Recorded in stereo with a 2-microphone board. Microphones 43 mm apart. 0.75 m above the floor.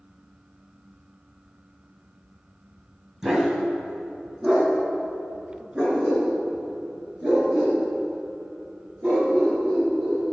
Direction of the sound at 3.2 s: 15° right (ahead or behind).